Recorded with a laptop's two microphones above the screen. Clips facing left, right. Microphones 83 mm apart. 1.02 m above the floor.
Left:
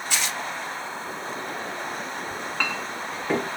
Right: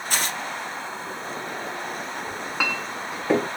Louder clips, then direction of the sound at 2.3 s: Right 2 dB; 10° right (ahead or behind).